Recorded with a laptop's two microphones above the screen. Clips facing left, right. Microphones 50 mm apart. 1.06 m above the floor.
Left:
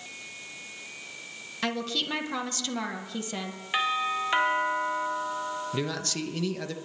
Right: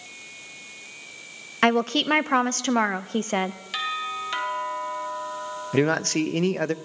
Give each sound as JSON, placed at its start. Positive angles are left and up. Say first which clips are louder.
{"t": 1.6, "sound": "a woman speaking", "louder": "right 10 dB", "side_deg": -50, "distance_m": 0.8}
{"t": 3.7, "sound": "a doorbell", "louder": "left 4 dB", "side_deg": 20, "distance_m": 1.8}
{"t": 5.7, "sound": "a man speaking", "louder": "right 10 dB", "side_deg": -50, "distance_m": 0.6}